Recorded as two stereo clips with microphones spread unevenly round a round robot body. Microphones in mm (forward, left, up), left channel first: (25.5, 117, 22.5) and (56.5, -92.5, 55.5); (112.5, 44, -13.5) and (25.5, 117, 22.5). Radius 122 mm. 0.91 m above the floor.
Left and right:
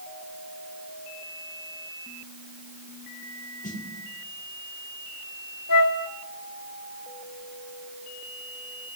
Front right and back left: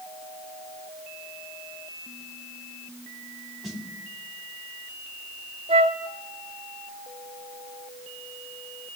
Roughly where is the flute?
Behind left.